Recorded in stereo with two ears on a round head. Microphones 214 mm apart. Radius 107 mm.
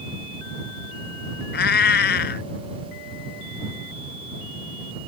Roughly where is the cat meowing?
Left.